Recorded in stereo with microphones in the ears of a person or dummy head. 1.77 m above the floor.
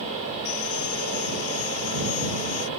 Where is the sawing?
80° left.